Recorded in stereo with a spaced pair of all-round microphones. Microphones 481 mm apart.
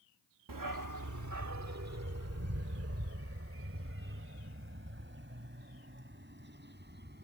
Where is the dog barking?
45° right (ahead or behind); by 7.2 s 20° right (ahead or behind).